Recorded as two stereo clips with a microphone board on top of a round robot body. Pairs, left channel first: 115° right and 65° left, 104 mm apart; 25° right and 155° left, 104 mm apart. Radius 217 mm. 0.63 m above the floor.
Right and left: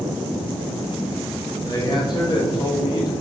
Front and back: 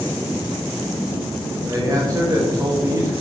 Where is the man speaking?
150° right, 1.6 m.